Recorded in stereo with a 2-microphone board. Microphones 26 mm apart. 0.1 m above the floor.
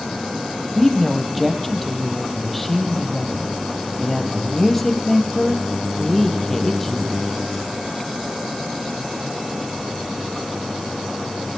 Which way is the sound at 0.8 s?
5° left (ahead or behind).